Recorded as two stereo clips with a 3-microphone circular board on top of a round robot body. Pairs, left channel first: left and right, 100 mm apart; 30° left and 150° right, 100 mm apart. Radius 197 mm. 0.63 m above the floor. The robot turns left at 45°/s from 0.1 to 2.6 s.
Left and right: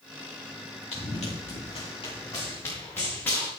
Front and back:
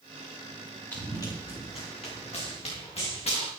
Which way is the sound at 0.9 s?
100° left.